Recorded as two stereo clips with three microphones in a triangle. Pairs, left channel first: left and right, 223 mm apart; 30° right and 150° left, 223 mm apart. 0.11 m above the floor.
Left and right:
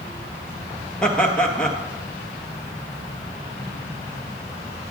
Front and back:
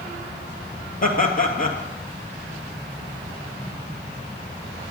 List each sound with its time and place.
1.0 s laughter: 5° left, 2 m